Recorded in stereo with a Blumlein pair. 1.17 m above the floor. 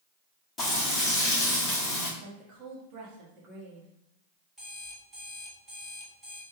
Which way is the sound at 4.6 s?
Straight ahead.